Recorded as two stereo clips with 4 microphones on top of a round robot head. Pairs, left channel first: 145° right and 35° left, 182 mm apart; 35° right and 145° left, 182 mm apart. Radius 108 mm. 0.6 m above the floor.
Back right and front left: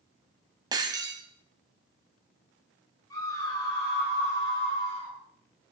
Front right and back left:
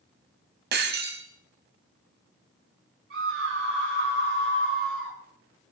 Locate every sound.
0.7 s breaking glass: 105° left, 1.8 m
3.1 s a scream: 145° left, 10 m